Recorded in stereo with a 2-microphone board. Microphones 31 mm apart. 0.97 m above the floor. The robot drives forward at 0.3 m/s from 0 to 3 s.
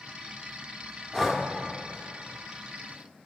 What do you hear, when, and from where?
1.1 s breathing: 10° left (ahead or behind), 0.6 m